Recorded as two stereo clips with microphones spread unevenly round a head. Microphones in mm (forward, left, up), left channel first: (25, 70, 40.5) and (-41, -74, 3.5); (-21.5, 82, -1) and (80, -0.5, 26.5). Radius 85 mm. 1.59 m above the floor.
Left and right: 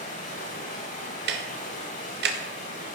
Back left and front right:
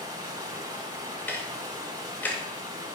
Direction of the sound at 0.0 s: 20° left.